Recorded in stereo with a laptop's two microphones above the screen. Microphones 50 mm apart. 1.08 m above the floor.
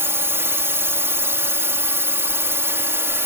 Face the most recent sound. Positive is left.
turn(degrees=-55)  # may be behind; listen again after turning